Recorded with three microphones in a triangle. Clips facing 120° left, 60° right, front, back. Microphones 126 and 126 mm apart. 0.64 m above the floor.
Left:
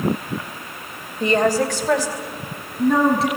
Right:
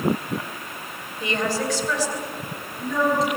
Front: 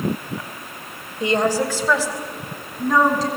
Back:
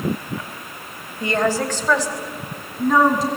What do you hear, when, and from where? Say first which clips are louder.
1.2 s a woman speaking: left 7 dB, front 1 dB; 70° left, 2.5 m; by 3.3 s 100° left, 5 m